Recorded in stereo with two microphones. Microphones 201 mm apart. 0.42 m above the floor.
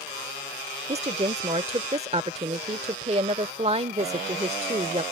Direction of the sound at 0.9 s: 35° right (ahead or behind).